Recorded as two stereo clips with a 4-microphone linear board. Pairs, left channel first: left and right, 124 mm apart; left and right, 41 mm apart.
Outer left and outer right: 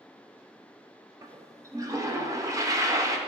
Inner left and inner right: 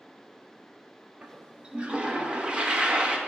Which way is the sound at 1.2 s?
25° right (ahead or behind).